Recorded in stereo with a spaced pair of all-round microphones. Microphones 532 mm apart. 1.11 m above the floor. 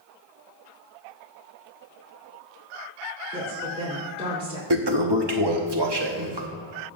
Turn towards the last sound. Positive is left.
turn(degrees=-50)  # may be behind; listen again after turning